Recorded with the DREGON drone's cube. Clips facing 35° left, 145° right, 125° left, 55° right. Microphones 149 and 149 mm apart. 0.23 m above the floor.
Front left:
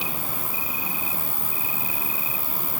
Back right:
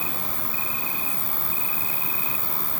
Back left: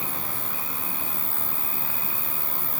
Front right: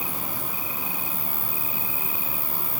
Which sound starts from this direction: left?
An insect, at 0.0 s.